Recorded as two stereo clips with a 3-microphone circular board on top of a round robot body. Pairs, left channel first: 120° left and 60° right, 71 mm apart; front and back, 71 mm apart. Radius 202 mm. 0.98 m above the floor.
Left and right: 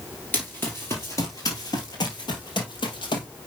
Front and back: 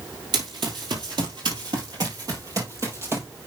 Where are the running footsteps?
170° right, 1.9 m; by 3.3 s 120° left, 2 m.